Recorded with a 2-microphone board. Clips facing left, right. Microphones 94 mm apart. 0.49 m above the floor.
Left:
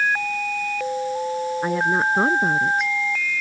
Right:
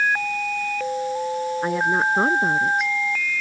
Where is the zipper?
I don't hear a zipper.